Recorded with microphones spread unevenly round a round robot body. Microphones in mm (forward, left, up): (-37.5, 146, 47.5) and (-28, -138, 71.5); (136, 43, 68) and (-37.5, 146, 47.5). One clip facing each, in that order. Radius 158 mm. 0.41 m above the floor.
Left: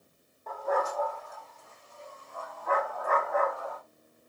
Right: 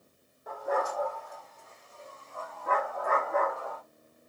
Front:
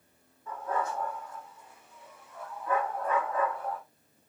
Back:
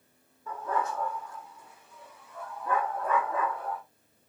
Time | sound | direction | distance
0.5 | a dog barking | 170° right | 7.5 m